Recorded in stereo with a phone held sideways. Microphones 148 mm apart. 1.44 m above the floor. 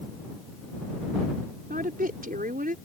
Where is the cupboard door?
No cupboard door in this recording.